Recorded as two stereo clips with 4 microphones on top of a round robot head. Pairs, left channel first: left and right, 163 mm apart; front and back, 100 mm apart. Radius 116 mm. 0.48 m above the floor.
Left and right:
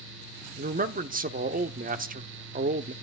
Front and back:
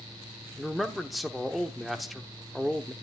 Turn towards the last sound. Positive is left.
turn(degrees=-90)